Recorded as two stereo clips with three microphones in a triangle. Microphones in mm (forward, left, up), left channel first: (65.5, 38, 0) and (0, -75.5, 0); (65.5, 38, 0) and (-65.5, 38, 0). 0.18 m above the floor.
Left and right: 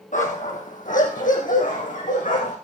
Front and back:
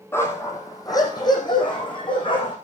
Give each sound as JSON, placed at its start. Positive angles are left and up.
{"t": 0.1, "sound": "a dog barking", "azimuth_deg": 70, "distance_m": 3.0}